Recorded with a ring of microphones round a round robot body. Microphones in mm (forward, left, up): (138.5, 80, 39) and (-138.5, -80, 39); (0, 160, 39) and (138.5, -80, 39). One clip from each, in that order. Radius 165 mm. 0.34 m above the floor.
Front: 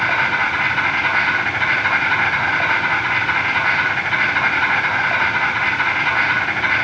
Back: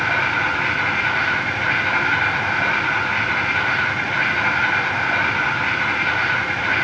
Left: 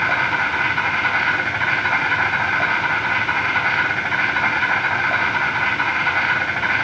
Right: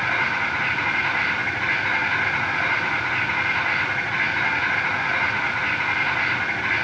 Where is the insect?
100° left, 4 m.